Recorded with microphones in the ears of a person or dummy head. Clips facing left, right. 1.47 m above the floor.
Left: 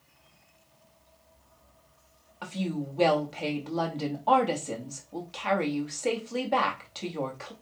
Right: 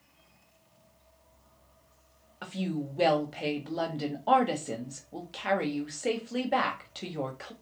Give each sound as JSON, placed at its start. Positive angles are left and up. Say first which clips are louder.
{"t": 2.4, "sound": "a woman speaking", "louder": "left 1 dB", "side_deg": -10, "distance_m": 1.1}